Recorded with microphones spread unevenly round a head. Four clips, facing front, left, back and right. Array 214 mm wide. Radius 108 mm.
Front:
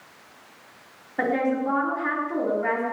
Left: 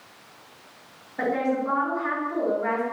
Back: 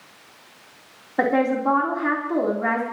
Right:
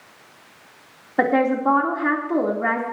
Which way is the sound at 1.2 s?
120° right.